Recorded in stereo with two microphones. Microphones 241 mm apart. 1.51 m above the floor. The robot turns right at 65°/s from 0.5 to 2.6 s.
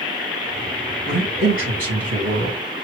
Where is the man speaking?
155° right, 1.8 m; by 2.6 s 55° right, 1.8 m.